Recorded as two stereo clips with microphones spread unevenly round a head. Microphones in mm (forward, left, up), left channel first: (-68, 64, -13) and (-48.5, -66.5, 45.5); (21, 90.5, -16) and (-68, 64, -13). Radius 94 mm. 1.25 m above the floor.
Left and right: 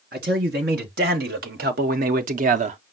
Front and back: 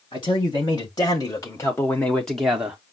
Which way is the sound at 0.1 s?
45° right.